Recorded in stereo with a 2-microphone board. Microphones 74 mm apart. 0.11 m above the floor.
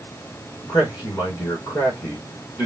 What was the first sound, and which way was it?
A man speaking, 40° left (ahead or behind).